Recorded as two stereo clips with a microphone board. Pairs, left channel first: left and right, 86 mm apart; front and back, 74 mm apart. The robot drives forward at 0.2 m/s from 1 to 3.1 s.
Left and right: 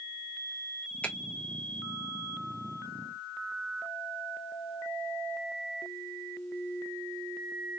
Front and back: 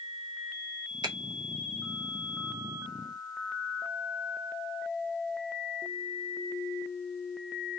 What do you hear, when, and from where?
1.0 s a finger snap: 165° left, 0.9 m